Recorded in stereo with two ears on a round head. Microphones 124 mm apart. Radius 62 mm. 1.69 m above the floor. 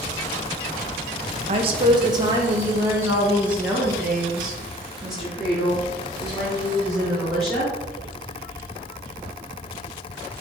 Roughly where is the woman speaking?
Right.